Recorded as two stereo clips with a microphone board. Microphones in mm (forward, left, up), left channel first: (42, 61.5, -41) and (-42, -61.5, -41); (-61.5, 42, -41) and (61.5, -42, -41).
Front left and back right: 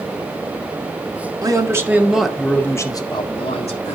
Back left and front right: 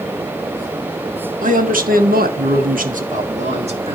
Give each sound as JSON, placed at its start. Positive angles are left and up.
{"t": 1.4, "sound": "a man speaking", "azimuth_deg": -60, "distance_m": 1.7}